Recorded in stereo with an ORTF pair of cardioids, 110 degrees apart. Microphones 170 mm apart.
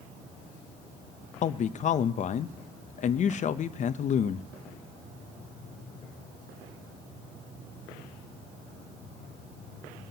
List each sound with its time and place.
1.4 s a man speaking: 45° left, 0.7 m